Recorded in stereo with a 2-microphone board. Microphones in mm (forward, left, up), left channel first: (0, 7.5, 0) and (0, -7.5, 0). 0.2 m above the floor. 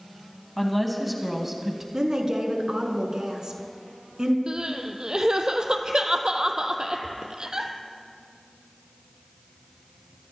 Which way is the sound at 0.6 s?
10° left (ahead or behind).